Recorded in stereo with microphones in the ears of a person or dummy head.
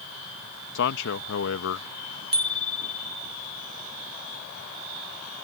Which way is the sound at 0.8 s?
65° left (ahead or behind).